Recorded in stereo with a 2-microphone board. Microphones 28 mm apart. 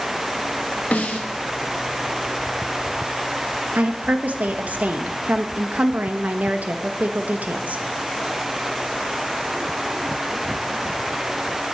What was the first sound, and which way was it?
A snare drum, 70° left (ahead or behind).